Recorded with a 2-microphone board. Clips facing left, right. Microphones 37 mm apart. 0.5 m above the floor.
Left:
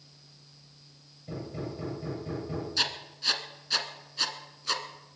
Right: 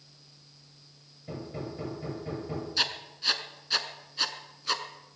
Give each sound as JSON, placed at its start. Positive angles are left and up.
{"t": 1.3, "sound": "hammering", "side_deg": -20, "distance_m": 9.0}
{"t": 2.8, "sound": "writing", "side_deg": -5, "distance_m": 1.3}